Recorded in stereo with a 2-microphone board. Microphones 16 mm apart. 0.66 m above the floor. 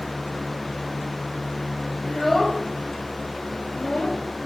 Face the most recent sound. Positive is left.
turn(degrees=75)  # may be behind; listen again after turning